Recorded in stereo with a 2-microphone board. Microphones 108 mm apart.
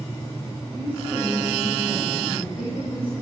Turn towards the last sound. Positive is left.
turn(degrees=15)  # may be behind; listen again after turning